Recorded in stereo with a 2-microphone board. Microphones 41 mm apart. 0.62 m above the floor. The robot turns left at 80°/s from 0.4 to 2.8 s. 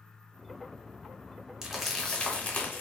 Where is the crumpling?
15° right (ahead or behind), 0.6 m; by 2.8 s 55° left (ahead or behind), 0.6 m.